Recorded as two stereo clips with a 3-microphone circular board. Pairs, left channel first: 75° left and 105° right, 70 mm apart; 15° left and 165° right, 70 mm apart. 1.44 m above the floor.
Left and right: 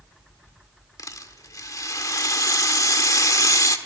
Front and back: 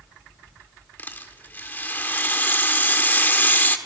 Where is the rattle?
70° left, 1.6 m.